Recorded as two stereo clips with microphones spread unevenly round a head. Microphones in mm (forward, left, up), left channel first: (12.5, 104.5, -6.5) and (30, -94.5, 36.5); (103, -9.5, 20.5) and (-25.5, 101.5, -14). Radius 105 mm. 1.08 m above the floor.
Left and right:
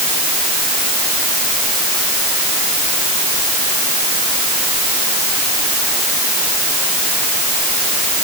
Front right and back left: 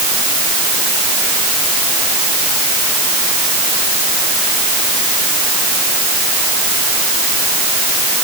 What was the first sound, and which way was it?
Only background noise.